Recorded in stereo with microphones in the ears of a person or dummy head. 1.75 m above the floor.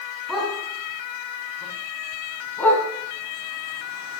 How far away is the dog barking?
About 5.5 m.